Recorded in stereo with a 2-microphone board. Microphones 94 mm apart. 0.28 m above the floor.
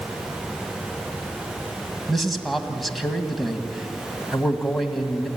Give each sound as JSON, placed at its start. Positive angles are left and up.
{"t": 2.1, "sound": "a man speaking", "side_deg": 0, "distance_m": 2.0}